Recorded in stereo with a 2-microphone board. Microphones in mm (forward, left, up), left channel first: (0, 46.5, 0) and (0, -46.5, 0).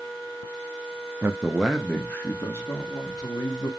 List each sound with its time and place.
1.2 s a man speaking: 20° right (ahead or behind), 0.6 m; by 3.7 s 45° left (ahead or behind), 1.4 m